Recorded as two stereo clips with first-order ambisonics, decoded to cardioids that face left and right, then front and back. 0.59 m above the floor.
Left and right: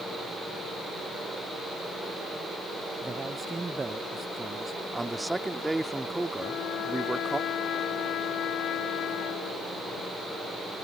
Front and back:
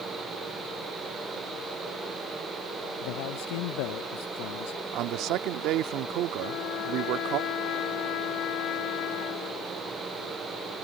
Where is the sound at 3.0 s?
10° right.